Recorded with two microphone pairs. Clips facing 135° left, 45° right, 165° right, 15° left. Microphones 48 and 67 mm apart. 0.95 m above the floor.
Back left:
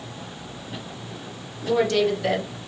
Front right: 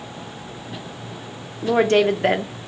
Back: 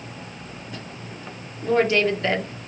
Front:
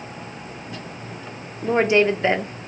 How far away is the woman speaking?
About 0.5 m.